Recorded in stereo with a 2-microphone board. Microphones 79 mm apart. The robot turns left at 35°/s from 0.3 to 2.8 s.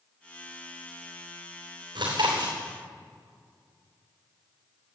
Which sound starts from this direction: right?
Chewing, at 1.9 s.